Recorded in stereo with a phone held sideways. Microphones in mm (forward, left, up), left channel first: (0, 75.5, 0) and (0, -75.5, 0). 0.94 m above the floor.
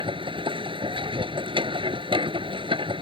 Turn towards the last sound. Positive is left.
turn(degrees=-35)  # may be behind; listen again after turning